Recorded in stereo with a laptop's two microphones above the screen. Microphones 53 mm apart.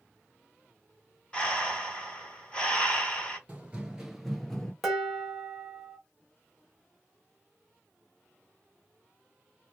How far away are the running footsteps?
About 1.0 m.